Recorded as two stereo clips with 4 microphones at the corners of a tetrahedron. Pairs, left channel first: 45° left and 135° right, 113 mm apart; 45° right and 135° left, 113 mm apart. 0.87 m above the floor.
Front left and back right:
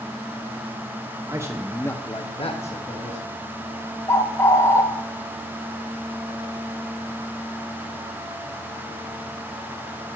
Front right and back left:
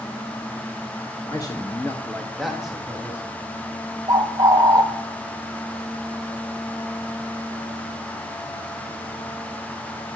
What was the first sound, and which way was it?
A man speaking, 90° right.